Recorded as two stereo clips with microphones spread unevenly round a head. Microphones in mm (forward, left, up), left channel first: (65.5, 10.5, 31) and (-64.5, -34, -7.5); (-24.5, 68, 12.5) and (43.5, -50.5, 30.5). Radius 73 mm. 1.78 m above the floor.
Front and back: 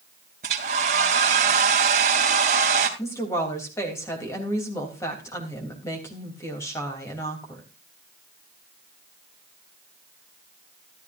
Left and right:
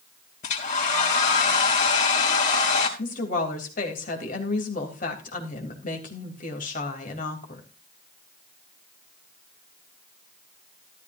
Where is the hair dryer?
160° left, 3 m.